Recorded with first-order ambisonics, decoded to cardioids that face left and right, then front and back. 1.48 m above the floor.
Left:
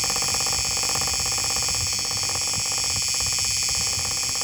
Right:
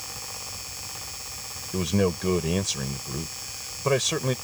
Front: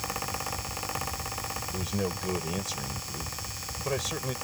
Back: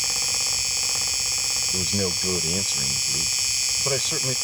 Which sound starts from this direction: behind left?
An insect, at 0.0 s.